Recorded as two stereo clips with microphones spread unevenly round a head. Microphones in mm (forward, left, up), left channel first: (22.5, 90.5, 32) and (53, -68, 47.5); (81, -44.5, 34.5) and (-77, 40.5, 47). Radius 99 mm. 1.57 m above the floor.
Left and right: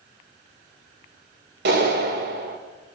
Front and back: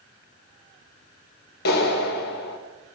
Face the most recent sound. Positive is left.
turn(degrees=-65)